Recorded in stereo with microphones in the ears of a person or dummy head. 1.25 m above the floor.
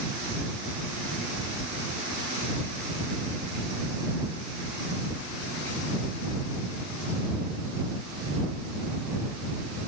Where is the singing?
No singing in this recording.